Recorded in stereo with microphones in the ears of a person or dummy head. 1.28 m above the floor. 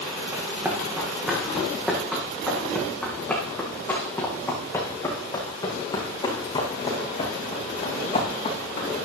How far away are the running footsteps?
About 5 m.